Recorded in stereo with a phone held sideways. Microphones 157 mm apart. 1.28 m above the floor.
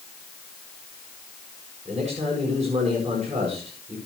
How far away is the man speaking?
About 7.5 m.